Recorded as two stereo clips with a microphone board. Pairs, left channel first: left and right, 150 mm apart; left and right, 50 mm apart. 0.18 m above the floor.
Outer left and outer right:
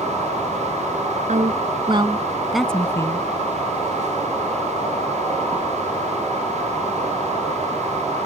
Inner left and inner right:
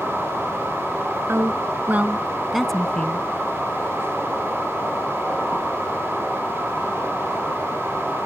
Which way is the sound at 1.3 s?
55° right (ahead or behind).